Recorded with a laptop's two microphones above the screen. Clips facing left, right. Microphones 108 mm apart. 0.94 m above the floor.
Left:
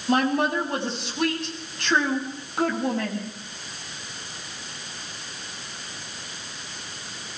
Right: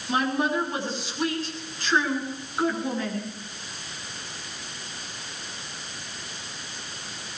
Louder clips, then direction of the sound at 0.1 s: Left 3 dB; 65° left (ahead or behind).